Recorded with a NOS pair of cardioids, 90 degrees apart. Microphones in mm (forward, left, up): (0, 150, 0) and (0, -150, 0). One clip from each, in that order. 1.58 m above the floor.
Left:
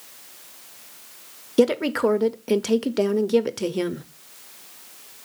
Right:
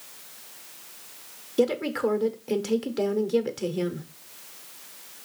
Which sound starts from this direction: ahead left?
A woman speaking, at 1.6 s.